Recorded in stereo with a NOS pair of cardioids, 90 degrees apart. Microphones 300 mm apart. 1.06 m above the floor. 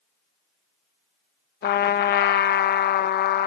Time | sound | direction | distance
1.6 | a trumpet | 35° left | 0.6 m